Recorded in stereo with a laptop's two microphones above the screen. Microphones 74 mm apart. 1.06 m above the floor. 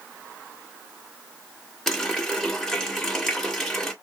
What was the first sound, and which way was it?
A running tap, 5° left (ahead or behind).